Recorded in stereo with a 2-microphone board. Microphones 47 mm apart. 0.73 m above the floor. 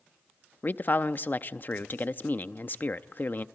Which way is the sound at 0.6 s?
40° left (ahead or behind).